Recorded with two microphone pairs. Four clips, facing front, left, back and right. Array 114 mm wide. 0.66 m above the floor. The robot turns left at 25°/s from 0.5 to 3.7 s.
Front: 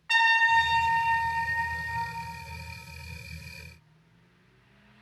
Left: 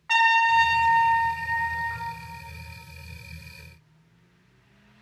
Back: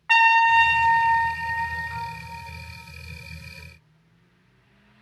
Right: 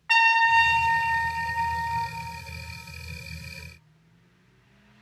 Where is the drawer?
I don't hear a drawer.